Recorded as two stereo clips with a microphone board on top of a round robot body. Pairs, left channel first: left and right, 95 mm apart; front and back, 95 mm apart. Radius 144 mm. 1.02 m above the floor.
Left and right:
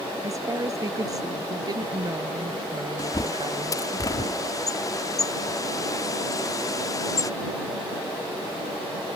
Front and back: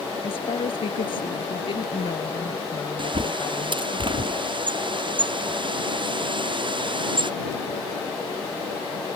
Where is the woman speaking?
35° right; by 4.0 s 50° right.